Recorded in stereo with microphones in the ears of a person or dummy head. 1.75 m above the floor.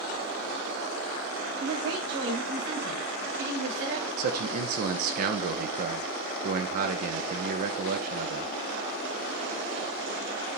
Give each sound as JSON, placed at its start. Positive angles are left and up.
{"t": 1.6, "sound": "a woman speaking", "side_deg": -80, "distance_m": 6.5}
{"t": 4.2, "sound": "a man speaking", "side_deg": -50, "distance_m": 1.0}